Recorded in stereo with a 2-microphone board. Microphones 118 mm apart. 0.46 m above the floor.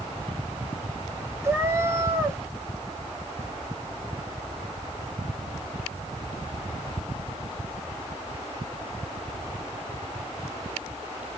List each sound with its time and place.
1.4 s a cat meowing: 20° right (ahead or behind), 0.7 m